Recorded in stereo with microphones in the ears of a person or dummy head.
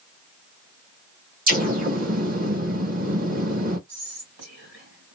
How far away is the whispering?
About 3 m.